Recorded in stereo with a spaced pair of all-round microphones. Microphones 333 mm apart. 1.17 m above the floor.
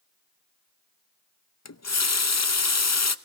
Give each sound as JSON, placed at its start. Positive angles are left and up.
{"t": 1.6, "sound": "a running tap", "side_deg": 55, "distance_m": 0.6}